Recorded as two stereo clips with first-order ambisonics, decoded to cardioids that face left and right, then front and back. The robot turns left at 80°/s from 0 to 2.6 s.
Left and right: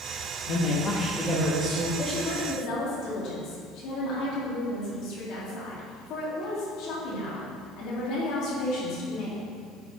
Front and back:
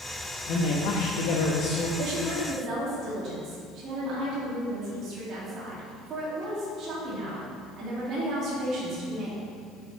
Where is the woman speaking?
175° left, 2.5 m; by 9.4 s 125° left, 2.5 m.